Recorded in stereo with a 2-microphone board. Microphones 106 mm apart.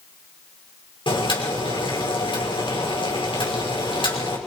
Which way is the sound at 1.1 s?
50° left (ahead or behind).